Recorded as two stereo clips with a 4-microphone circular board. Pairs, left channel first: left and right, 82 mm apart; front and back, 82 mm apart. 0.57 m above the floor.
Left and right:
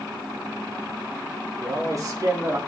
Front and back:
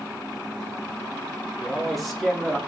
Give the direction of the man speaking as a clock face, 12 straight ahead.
3 o'clock.